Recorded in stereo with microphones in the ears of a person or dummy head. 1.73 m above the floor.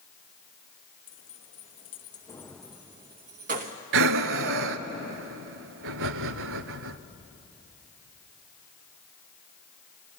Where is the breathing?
70° right (ahead or behind), 0.7 m.